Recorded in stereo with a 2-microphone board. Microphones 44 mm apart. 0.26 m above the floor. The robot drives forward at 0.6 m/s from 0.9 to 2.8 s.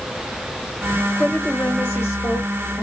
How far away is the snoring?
No snoring in this recording.